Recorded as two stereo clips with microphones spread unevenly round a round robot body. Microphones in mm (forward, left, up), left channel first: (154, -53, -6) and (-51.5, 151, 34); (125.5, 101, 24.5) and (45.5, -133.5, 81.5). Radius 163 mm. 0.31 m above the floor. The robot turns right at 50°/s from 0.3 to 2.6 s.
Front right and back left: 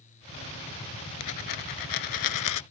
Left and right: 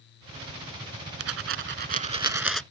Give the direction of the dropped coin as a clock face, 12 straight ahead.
3 o'clock.